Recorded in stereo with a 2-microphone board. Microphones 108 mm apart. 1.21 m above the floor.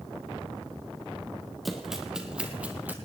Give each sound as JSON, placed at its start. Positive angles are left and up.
{"t": 1.6, "sound": "running footsteps", "side_deg": 0, "distance_m": 3.0}